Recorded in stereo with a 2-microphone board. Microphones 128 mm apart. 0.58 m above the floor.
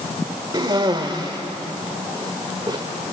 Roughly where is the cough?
Right.